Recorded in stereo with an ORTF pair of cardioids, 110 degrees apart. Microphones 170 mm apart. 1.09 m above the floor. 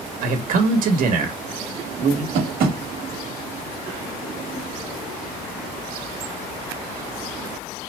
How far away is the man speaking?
About 1.2 m.